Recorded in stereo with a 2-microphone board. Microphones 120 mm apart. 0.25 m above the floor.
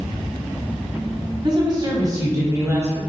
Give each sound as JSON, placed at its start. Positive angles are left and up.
{"t": 1.4, "sound": "a woman speaking", "side_deg": -40, "distance_m": 1.4}